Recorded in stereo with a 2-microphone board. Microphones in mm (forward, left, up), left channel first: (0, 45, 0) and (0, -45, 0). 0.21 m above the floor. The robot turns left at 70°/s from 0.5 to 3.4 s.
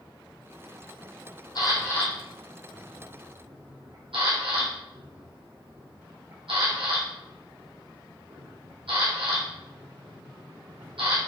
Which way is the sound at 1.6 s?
55° left (ahead or behind).